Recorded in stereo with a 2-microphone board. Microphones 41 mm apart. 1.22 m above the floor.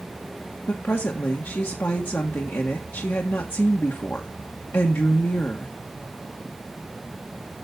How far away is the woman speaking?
About 1.7 m.